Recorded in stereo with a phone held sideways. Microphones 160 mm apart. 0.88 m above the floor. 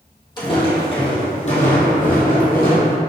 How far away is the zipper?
I don't hear a zipper.